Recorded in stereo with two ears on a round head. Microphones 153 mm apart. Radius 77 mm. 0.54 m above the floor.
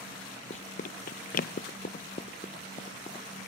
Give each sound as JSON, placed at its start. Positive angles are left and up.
{"t": 0.5, "sound": "running footsteps", "side_deg": 40}